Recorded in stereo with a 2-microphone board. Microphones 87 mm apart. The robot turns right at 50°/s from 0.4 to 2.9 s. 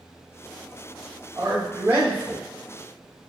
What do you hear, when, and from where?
1.4 s a man speaking: 60° right, 1.4 m; by 2.4 s 5° right, 1.4 m